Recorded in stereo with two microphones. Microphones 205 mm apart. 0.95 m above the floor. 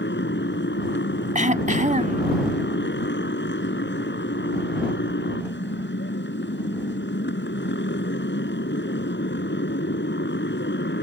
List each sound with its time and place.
0.0 s a motorcycle: 65° left (ahead or behind)
1.4 s throat clearing: 40° right (ahead or behind)